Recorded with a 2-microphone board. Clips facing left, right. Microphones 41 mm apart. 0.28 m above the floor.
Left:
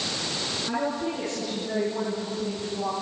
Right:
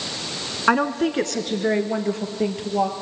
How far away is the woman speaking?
About 2.5 m.